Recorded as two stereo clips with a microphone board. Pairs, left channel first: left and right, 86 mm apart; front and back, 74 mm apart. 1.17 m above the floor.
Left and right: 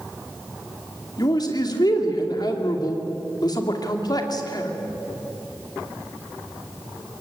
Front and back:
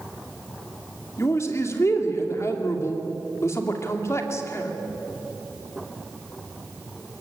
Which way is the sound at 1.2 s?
50° left.